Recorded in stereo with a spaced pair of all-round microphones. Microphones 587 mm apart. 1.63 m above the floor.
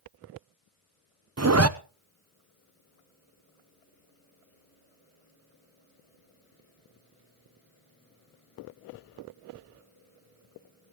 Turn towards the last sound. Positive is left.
turn(degrees=-25)  # may be behind; listen again after turning